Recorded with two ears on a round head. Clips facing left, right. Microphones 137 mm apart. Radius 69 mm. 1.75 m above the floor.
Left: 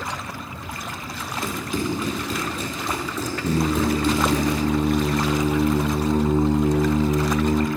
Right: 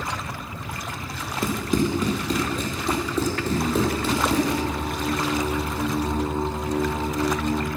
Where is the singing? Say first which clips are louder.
Left 5 dB; 80° left, 0.8 m.